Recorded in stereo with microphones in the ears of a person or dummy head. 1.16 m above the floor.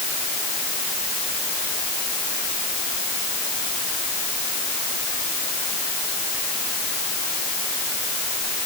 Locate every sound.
Only background noise.